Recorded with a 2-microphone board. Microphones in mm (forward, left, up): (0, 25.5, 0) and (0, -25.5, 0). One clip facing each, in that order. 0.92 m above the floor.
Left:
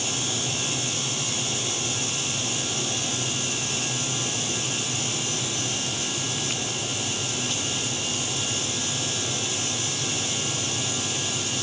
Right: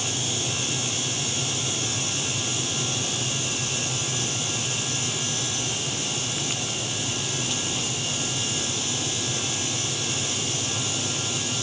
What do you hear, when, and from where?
Only background noise.